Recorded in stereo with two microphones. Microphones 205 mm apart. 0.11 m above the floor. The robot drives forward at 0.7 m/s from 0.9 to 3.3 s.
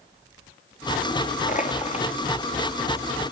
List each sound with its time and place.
1.5 s crushing: 40° left (ahead or behind), 1.2 m; by 2.1 s 30° left (ahead or behind), 1.5 m